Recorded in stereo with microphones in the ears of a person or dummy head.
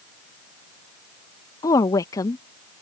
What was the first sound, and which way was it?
A woman speaking, 20° left (ahead or behind).